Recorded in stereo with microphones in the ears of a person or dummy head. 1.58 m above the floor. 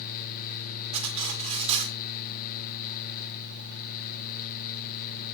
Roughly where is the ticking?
I don't hear ticking.